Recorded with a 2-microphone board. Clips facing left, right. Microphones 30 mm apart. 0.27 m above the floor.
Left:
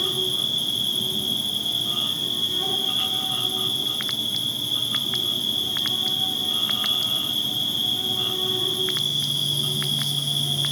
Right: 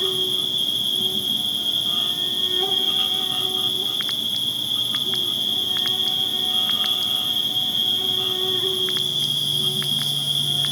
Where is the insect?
25° right (ahead or behind), 6 m.